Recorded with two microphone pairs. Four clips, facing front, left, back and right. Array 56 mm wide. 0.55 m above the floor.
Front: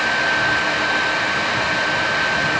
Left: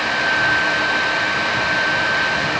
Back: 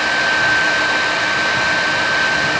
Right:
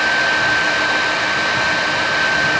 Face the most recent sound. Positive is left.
No sound to turn to.